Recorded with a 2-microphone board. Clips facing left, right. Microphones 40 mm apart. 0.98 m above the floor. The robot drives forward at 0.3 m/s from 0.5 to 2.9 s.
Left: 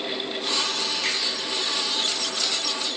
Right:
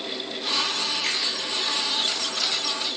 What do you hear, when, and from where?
1.0 s a finger snap: 60° left (ahead or behind), 1.0 m